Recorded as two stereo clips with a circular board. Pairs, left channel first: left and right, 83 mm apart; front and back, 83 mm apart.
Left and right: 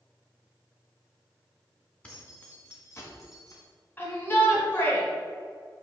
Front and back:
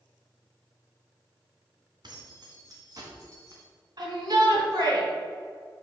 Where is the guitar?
No guitar in this recording.